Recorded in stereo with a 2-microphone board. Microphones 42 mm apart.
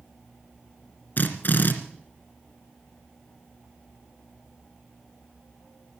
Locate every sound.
1.2 s a drill: 50° left (ahead or behind), 2 m